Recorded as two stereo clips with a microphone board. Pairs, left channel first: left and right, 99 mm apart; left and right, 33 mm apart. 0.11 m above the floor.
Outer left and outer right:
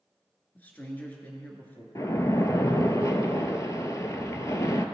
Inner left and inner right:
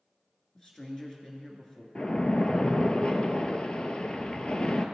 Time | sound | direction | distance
0.6 | a man speaking | 20° left (ahead or behind) | 1.4 m
1.9 | a splash | 35° left (ahead or behind) | 0.5 m